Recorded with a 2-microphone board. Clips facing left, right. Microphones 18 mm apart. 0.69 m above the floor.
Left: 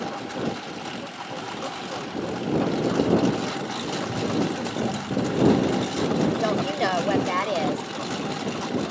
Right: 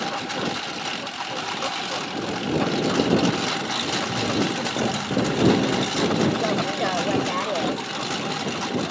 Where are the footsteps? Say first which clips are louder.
Right 2 dB; 40° right (ahead or behind); by 6.3 s 45° right (ahead or behind).